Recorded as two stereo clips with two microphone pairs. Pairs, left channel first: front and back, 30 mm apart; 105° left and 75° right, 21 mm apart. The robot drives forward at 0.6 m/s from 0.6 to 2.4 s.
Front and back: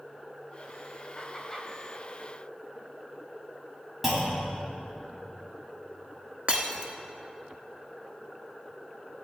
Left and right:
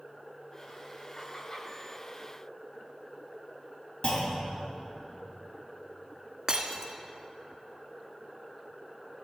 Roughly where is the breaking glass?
Behind right.